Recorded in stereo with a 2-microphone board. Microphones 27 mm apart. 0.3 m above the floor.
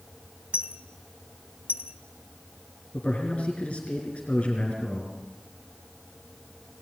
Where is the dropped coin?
50° right (ahead or behind), 1.0 m.